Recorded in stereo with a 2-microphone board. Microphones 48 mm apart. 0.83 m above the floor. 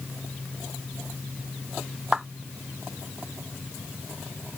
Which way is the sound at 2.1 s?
10° right (ahead or behind).